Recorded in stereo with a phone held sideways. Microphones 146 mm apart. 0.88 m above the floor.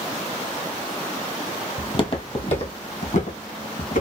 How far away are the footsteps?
About 1.2 m.